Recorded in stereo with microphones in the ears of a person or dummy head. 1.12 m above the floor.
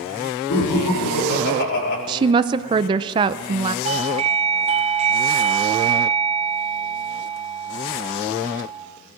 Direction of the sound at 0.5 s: 70° left (ahead or behind).